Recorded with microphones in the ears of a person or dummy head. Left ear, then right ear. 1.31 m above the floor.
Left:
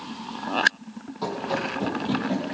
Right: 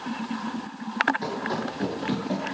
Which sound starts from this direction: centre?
Running footsteps, at 1.2 s.